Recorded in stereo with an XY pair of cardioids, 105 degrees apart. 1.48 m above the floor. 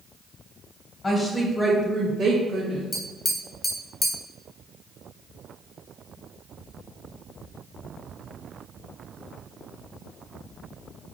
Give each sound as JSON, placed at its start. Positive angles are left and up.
{"t": 1.0, "sound": "a woman speaking", "azimuth_deg": 35, "distance_m": 0.6}
{"t": 2.9, "sound": "tapping", "azimuth_deg": 25, "distance_m": 0.6}